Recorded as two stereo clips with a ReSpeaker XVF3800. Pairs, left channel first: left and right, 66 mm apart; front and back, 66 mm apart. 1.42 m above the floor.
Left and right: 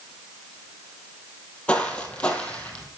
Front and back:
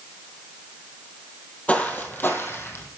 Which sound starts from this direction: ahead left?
Footsteps, at 1.7 s.